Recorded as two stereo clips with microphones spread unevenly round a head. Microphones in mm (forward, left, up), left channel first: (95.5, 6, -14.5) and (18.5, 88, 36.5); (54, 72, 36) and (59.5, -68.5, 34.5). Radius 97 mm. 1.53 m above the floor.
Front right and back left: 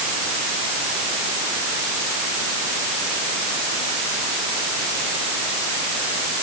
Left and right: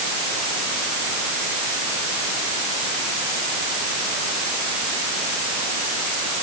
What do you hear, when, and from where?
Only background noise.